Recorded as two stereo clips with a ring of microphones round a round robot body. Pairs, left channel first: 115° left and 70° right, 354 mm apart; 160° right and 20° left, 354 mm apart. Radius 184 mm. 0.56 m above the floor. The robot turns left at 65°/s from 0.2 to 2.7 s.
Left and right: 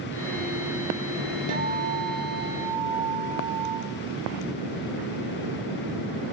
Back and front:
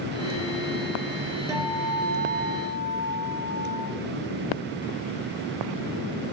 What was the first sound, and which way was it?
A guitar, 55° right.